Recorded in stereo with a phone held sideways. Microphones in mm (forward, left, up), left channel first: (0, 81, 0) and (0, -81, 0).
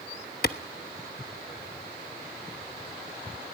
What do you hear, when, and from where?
0.4 s a clap: 65° left (ahead or behind), 1.1 m